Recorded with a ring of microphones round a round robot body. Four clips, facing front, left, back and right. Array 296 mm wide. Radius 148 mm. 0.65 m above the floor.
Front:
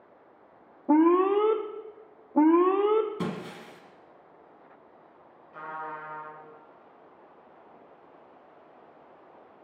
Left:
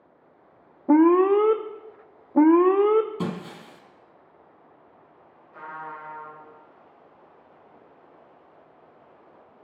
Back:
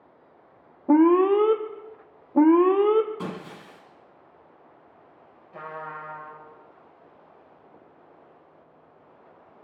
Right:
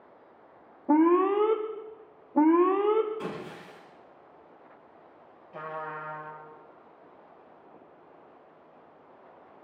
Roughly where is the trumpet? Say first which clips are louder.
Right 1 dB, back 1 dB; behind right.